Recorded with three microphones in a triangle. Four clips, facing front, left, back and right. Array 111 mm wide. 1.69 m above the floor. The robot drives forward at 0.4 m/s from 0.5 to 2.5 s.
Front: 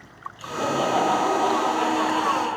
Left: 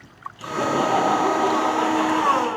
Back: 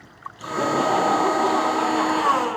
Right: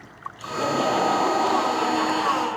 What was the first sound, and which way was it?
Laughter, 145° left.